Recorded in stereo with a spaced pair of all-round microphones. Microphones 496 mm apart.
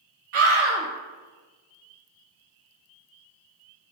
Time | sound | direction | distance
0.3 | a scream | 85° right | 0.6 m